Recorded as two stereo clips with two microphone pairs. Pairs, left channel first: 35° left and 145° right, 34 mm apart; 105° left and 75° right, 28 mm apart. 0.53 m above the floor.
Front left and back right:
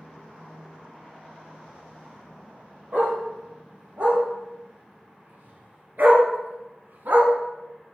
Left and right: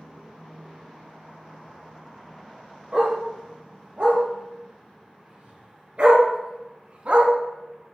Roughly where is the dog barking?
Behind right.